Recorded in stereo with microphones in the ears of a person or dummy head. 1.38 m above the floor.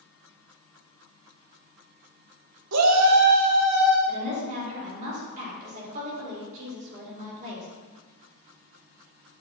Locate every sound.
2.7 s a shout: 80° right, 1.2 m; by 4.0 s centre (ahead or behind), 1.4 m
4.1 s a woman speaking: 45° right (ahead or behind), 3.5 m